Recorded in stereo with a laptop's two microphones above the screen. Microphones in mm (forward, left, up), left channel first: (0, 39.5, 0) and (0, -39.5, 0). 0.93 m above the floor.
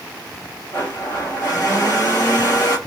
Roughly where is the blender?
Left.